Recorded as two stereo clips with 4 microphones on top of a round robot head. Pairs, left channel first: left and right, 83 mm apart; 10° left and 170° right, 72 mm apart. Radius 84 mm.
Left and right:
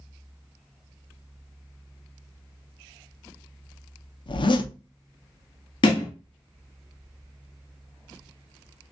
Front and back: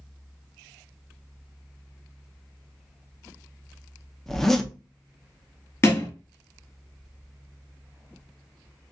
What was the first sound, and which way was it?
A zipper, 95° left.